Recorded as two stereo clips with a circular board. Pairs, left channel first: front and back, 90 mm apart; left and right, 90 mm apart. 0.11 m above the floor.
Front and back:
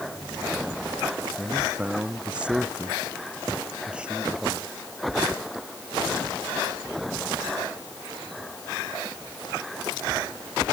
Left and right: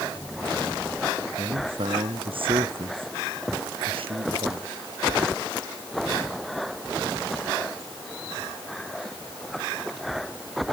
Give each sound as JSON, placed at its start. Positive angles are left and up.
{"t": 1.4, "sound": "a man speaking", "azimuth_deg": -105}